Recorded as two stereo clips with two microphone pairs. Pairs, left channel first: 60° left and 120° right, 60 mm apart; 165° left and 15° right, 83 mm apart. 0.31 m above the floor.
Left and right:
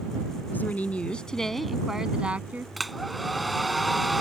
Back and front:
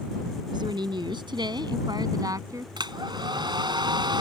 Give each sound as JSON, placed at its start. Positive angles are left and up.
{"t": 0.5, "sound": "a woman speaking", "azimuth_deg": 5}
{"t": 2.8, "sound": "a hair dryer", "azimuth_deg": -30}